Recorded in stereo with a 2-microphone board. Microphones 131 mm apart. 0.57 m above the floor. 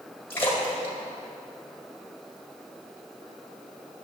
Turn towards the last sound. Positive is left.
turn(degrees=15)  # may be behind; listen again after turning